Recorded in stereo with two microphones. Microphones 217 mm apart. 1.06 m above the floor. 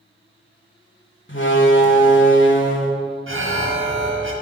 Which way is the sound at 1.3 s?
60° left (ahead or behind).